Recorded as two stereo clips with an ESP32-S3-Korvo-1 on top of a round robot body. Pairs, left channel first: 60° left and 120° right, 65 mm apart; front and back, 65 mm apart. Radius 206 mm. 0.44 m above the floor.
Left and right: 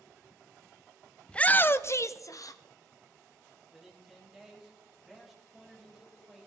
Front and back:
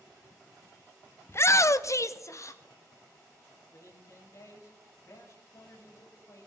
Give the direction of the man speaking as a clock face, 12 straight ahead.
1 o'clock.